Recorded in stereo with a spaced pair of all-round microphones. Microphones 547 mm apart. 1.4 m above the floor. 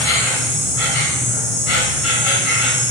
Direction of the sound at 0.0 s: 65° left (ahead or behind).